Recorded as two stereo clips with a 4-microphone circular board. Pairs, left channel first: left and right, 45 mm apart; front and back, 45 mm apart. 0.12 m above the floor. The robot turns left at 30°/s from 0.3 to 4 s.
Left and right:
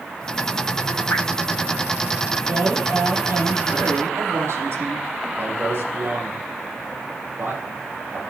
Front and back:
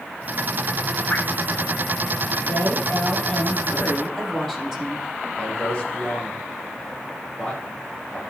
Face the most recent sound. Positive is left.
turn(degrees=-65)